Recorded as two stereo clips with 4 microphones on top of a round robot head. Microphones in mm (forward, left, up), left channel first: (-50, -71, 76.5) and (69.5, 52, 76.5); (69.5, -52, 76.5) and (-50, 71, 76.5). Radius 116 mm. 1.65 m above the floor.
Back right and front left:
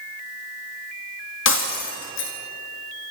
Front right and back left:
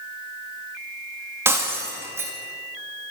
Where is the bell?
No bell in this recording.